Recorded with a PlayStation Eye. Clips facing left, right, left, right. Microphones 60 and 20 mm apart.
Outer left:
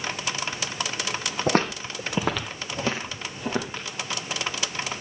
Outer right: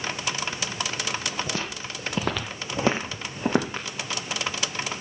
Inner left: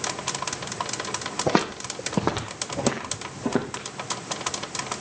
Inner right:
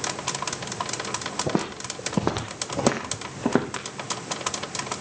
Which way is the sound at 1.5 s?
50° left (ahead or behind).